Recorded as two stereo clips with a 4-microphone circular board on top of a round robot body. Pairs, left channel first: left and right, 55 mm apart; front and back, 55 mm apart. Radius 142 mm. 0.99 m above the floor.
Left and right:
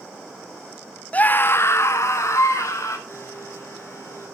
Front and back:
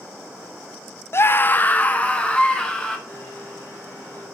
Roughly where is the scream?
Ahead left.